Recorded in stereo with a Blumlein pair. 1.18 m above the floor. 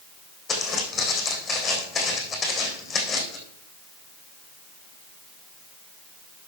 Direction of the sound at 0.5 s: 15° left.